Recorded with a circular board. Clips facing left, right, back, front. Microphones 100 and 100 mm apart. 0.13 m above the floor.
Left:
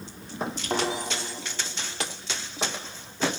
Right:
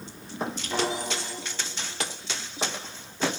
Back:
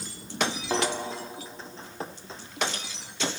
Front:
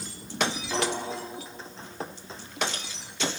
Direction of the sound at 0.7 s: 130° left.